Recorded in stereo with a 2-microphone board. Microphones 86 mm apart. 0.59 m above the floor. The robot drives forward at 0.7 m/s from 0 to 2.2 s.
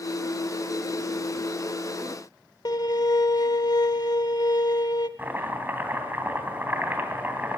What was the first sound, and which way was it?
A violin, 50° left (ahead or behind).